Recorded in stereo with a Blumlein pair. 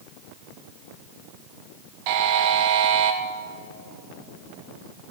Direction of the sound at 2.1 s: 45° right.